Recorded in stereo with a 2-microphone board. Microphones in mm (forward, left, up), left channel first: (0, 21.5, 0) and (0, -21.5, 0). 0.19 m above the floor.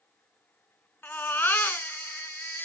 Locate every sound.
1.0 s a baby crying: 55° left (ahead or behind), 1.2 m